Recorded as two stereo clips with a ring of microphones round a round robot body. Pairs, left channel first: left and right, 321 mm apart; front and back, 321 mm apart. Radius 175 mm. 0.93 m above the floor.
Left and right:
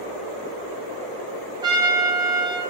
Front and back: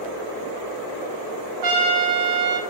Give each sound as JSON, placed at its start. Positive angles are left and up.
{"t": 1.6, "sound": "a trumpet", "azimuth_deg": -165, "distance_m": 0.7}